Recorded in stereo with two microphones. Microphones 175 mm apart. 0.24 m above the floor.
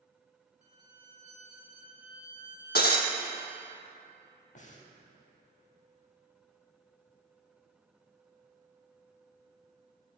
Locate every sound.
0.6 s a violin: 50° right (ahead or behind), 0.7 m
2.8 s breaking glass: 70° left (ahead or behind), 0.6 m
4.5 s breathing: 45° left (ahead or behind), 0.6 m